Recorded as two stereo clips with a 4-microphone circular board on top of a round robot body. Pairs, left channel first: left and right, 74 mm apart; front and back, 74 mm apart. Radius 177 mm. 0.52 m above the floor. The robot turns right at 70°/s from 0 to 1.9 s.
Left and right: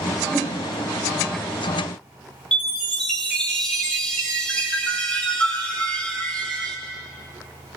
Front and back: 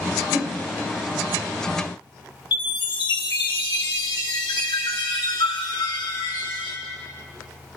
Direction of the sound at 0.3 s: 30° right.